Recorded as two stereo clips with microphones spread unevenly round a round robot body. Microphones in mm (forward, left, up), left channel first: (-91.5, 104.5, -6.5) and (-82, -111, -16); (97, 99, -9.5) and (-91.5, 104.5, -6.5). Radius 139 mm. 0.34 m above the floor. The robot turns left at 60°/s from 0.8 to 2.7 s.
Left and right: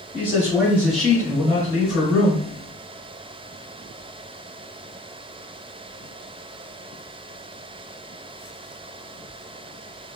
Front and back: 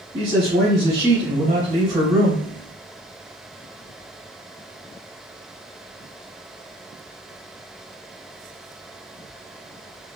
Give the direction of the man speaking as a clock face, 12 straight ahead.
6 o'clock.